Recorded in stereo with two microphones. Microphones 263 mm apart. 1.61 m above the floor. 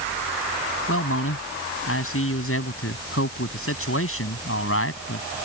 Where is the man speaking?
55° left (ahead or behind).